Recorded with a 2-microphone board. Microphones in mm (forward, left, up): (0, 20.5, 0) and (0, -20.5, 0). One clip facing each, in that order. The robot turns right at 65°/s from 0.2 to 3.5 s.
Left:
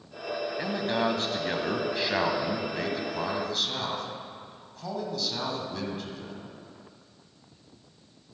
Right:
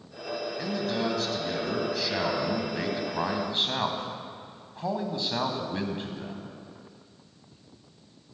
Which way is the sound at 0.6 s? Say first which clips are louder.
Left 2 dB; 40° left.